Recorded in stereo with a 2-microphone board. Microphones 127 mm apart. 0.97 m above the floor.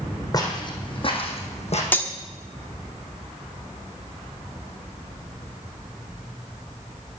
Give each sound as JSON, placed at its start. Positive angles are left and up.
{"t": 0.3, "sound": "footsteps", "side_deg": 30, "distance_m": 3.0}
{"t": 1.9, "sound": "cutlery clinking", "side_deg": 15, "distance_m": 1.0}